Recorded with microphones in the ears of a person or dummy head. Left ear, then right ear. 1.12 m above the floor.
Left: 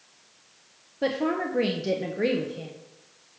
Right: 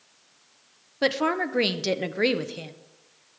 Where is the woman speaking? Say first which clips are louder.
Right 3 dB; 45° right (ahead or behind), 0.5 m.